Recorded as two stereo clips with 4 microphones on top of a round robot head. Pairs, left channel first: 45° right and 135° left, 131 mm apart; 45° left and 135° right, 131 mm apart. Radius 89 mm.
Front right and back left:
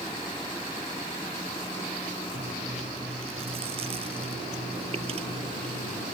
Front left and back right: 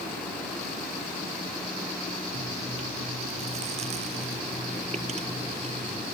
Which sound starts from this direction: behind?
Chewing, at 2.3 s.